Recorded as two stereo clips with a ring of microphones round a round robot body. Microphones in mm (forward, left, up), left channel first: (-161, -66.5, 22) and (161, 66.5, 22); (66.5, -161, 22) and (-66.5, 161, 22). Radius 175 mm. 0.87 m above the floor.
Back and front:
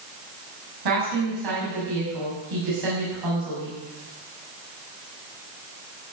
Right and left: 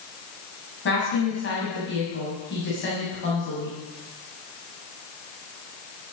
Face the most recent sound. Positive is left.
turn(degrees=-5)